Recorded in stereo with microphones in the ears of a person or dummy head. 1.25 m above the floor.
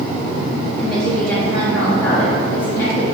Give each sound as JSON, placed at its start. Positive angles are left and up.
{"t": 0.8, "sound": "a woman speaking", "side_deg": 15, "distance_m": 3.5}